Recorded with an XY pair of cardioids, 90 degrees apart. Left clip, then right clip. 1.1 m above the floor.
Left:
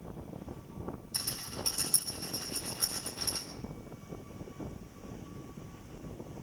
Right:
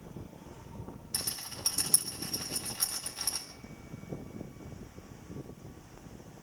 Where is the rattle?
60° right, 8.5 m.